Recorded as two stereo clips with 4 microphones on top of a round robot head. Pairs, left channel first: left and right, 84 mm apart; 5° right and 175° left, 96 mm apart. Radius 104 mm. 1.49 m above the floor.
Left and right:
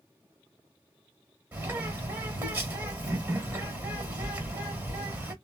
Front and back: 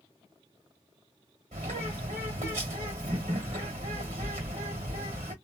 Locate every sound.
1.5 s a bird: 155° right, 1.7 m